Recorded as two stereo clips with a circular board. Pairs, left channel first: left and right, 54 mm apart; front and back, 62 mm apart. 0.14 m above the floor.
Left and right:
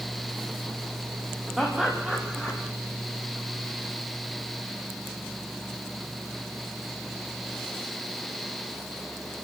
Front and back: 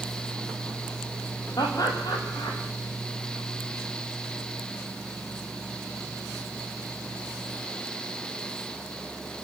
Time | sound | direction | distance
1.6 | laughter | straight ahead | 7 m